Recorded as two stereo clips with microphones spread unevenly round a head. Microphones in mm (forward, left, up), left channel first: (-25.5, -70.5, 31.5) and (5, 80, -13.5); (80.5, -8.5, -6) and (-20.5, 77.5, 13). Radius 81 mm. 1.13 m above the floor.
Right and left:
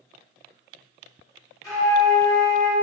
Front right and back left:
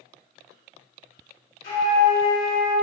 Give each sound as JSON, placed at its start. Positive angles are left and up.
{"t": 1.6, "sound": "a flute", "azimuth_deg": -35, "distance_m": 1.5}